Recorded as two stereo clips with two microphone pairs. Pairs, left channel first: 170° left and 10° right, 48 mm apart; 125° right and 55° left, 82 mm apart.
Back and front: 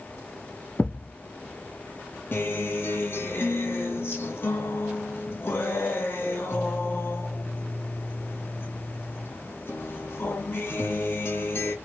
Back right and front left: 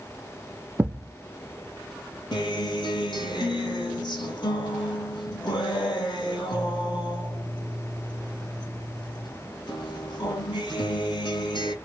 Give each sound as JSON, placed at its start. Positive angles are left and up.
{"t": 0.8, "sound": "a thud", "azimuth_deg": 120, "distance_m": 0.5}
{"t": 2.3, "sound": "a guitar", "azimuth_deg": -145, "distance_m": 1.0}